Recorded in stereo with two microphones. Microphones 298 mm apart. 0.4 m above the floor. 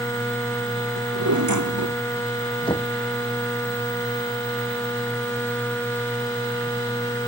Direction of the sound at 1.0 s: 90° right.